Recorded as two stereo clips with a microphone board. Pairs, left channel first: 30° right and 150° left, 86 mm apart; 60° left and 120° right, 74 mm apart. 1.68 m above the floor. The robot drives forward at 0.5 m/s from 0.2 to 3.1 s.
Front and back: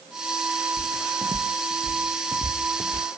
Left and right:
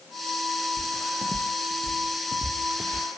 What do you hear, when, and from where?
0.8 s footsteps: 120° right